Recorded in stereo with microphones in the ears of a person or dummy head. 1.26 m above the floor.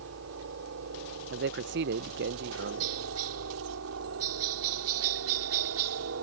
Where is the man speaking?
60° right (ahead or behind).